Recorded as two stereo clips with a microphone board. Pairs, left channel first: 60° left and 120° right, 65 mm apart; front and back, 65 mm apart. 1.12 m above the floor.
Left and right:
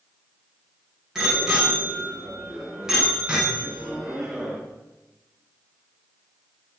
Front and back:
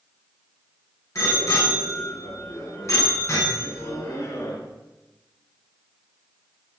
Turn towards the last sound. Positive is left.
turn(degrees=-40)